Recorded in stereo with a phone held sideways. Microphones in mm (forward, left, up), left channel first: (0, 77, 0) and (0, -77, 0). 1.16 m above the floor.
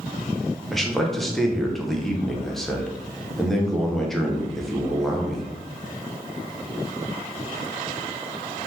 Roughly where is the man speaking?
Centre.